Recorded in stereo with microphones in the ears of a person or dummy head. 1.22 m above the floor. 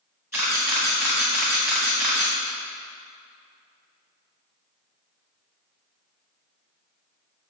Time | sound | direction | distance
0.3 | a camera shutter | 15° right (ahead or behind) | 0.9 m